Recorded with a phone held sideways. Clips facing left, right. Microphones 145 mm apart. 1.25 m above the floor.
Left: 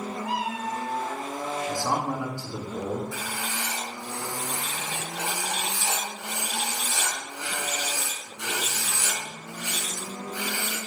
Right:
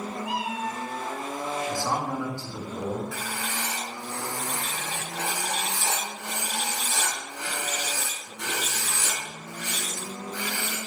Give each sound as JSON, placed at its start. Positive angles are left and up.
{"t": 0.2, "sound": "a cat meowing", "side_deg": 45, "distance_m": 2.5}
{"t": 1.7, "sound": "a man speaking", "side_deg": 15, "distance_m": 2.5}
{"t": 3.1, "sound": "writing", "side_deg": -65, "distance_m": 4.0}